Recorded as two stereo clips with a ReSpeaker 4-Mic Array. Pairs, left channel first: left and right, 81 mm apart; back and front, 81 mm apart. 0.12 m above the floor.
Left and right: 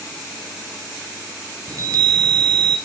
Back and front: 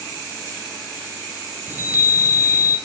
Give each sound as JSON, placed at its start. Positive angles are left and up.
{"t": 1.7, "sound": "a chime", "azimuth_deg": -60, "distance_m": 1.2}